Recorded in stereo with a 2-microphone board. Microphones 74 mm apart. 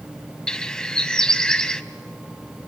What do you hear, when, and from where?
0.5 s a bird: 10° left (ahead or behind), 0.6 m